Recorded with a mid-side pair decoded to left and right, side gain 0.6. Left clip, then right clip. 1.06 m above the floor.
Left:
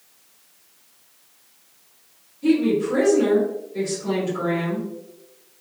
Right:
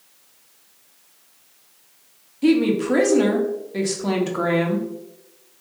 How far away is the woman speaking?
About 1.5 m.